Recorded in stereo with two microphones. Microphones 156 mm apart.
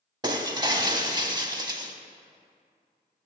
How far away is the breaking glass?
About 0.6 m.